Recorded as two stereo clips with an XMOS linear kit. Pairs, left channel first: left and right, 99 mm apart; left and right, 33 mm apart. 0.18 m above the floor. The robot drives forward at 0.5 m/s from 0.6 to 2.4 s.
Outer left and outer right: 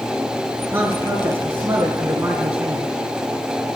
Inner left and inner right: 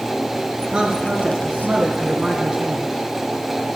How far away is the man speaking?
About 3 m.